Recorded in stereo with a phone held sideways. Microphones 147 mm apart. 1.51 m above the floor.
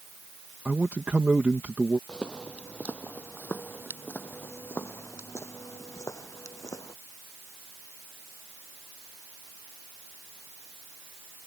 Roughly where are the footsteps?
Centre.